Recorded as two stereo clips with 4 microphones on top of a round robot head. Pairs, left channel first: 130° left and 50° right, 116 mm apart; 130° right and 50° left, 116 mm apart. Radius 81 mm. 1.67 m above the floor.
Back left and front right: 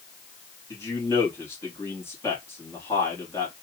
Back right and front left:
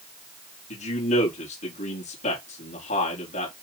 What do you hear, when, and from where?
0.7 s a man speaking: 160° right, 4.5 m